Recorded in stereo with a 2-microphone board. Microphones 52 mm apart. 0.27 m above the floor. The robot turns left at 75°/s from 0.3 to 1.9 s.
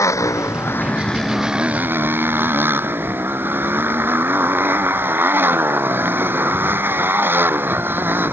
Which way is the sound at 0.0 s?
75° left.